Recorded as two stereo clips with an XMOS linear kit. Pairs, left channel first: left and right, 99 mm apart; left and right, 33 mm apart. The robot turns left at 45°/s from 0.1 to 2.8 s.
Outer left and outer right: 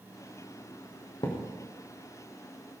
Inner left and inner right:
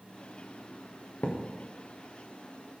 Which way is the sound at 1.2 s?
45° left (ahead or behind).